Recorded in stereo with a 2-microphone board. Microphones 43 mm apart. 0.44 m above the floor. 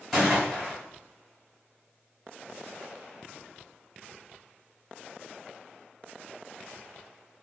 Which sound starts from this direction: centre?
A gunshot, at 0.1 s.